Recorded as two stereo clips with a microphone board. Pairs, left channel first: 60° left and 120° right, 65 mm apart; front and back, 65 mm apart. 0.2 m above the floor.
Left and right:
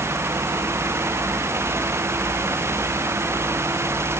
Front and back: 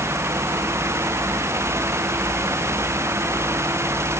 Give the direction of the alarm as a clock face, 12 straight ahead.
No alarm in this recording.